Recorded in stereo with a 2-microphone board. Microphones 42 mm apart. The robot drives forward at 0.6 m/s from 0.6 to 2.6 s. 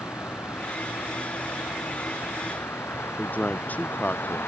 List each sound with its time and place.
0.0 s a vehicle: 75° left (ahead or behind); by 4.5 s 65° left (ahead or behind)
3.2 s a man speaking: 40° left (ahead or behind)